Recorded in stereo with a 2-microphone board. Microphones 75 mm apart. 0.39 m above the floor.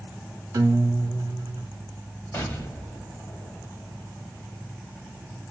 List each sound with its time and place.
0.5 s a guitar: 60° right (ahead or behind), 0.7 m
2.3 s an explosion: 25° left (ahead or behind), 1.0 m